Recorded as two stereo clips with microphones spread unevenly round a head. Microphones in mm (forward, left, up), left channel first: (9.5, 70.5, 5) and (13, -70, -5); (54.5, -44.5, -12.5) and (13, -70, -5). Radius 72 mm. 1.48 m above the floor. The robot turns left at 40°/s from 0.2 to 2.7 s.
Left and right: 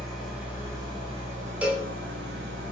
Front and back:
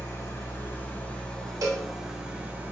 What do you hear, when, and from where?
0.0 s an engine running: straight ahead, 1.2 m; by 2.7 s 100° right, 1.2 m
1.6 s a cowbell: 170° right, 0.8 m; by 1.9 s straight behind, 0.8 m